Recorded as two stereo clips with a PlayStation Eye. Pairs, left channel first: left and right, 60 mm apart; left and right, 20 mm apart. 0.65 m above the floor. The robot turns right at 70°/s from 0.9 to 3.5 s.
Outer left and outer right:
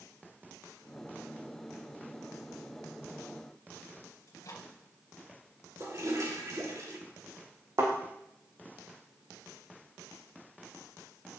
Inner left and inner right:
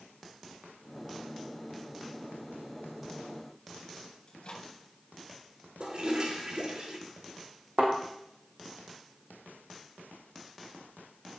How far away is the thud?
About 4 m.